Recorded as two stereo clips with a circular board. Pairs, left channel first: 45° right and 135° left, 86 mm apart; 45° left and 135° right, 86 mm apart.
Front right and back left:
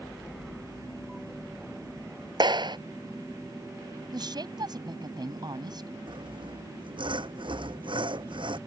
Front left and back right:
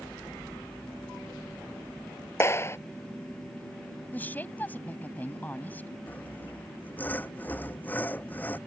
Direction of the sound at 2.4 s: 105° left.